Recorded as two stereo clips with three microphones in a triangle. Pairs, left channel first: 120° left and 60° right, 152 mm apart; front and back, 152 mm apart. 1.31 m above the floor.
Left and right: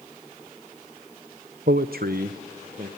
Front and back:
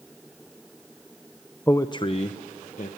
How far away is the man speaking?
About 0.6 m.